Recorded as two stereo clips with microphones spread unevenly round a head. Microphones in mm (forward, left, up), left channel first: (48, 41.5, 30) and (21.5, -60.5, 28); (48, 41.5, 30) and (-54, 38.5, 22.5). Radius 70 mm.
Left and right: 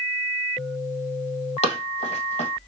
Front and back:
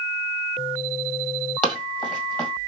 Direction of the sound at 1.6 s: 70° left.